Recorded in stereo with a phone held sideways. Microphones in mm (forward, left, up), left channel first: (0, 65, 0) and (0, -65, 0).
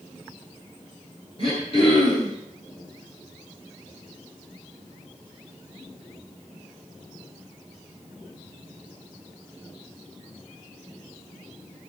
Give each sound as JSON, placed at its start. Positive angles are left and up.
{"t": 1.4, "sound": "throat clearing", "side_deg": 45, "distance_m": 9.0}